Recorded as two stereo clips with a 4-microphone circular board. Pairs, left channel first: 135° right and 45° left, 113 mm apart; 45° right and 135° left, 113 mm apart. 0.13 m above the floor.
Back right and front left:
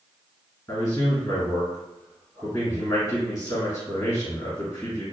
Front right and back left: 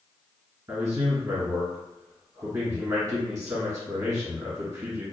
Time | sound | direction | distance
0.7 | a man speaking | 170° right | 2.0 m